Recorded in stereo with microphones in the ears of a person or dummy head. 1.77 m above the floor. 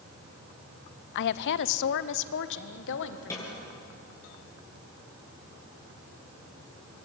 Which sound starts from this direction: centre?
A snare drum, at 3.3 s.